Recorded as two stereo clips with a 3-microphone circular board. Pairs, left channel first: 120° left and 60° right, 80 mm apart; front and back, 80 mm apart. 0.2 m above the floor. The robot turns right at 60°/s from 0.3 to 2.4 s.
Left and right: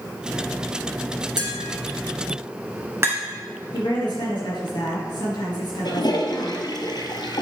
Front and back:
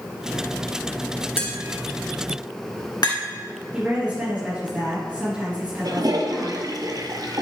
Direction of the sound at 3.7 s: 110° left.